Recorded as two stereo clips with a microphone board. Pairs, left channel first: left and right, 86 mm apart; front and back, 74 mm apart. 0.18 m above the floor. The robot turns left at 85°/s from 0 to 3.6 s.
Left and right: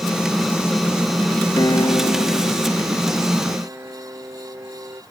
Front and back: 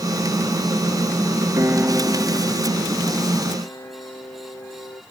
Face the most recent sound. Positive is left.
turn(degrees=-35)